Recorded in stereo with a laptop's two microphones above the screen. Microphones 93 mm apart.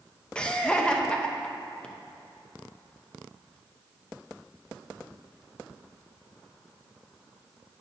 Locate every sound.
0.3 s laughter: 10° left (ahead or behind), 0.8 m